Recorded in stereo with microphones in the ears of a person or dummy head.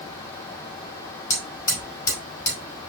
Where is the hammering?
20° left (ahead or behind), 5 m.